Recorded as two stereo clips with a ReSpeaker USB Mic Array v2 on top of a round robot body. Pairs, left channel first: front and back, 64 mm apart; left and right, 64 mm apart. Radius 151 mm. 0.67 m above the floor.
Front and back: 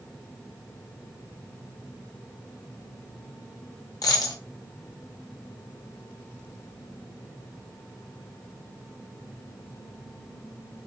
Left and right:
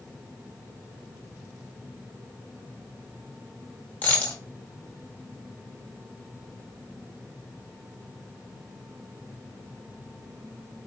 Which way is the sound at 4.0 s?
25° left.